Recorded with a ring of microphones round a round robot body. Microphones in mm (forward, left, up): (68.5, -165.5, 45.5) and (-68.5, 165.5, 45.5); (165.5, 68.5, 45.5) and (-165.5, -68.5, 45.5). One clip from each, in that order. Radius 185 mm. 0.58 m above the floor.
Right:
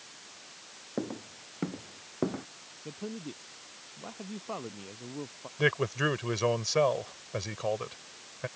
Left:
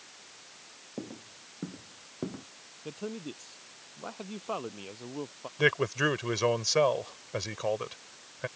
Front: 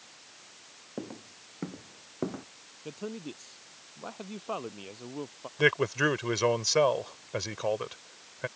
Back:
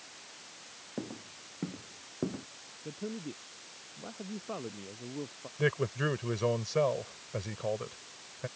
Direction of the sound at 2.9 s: 55° left.